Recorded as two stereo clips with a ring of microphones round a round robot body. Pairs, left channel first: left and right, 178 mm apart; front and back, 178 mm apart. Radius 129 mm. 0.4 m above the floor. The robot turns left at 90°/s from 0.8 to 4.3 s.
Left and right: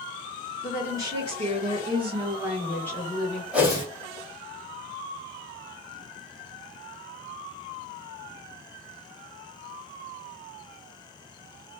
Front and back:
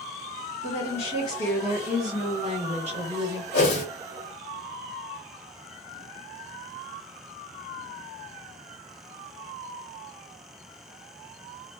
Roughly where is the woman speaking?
Ahead.